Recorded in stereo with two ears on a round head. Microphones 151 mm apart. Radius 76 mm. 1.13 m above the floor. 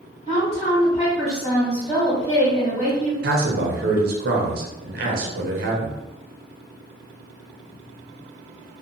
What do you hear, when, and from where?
0.3 s a woman speaking: 45° left (ahead or behind), 1.4 m
3.2 s a man speaking: 55° right (ahead or behind), 0.7 m